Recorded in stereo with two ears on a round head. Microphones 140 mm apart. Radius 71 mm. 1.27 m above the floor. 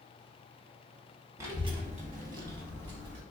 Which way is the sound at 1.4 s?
20° right (ahead or behind).